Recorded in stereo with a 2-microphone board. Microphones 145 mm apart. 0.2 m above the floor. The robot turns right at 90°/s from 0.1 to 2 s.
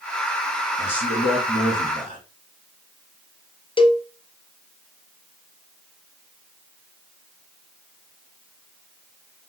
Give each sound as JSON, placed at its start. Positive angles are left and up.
{"t": 0.8, "sound": "a man speaking", "azimuth_deg": 180, "distance_m": 3.5}
{"t": 3.8, "sound": "a cowbell", "side_deg": 35, "distance_m": 0.5}